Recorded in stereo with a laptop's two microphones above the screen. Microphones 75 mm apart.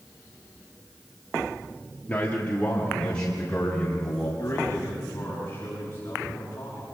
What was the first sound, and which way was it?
A man speaking, 20° left (ahead or behind).